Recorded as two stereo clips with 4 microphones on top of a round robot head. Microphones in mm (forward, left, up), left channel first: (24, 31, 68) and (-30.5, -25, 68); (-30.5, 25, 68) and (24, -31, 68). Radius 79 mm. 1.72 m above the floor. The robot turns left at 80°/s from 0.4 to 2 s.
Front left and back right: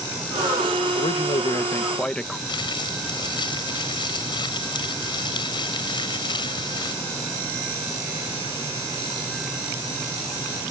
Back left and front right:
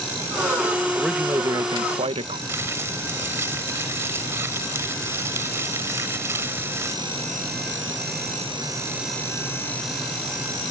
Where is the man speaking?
50° left; by 2.4 s 35° right.